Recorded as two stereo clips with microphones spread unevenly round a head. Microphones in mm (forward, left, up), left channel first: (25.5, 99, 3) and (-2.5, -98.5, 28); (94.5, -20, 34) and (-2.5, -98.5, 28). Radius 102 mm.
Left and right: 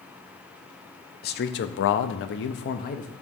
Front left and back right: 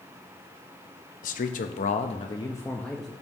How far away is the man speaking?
About 0.9 m.